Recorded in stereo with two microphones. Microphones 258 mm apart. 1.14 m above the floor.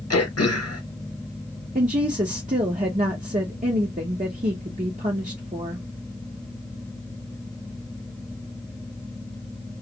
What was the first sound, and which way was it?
Throat clearing, 70° left (ahead or behind).